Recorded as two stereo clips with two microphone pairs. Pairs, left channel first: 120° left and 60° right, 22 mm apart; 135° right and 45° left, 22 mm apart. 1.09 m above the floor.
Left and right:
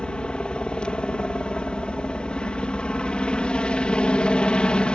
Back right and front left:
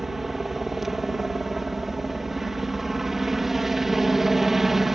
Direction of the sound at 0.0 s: 120° left.